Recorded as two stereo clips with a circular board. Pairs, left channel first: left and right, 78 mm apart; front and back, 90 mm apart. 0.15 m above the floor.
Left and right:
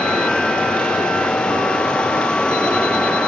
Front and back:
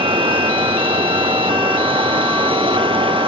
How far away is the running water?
About 1.3 m.